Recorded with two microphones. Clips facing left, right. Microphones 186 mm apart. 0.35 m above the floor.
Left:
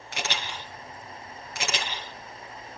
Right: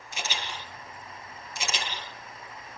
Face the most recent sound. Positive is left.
turn(degrees=75)  # may be behind; listen again after turning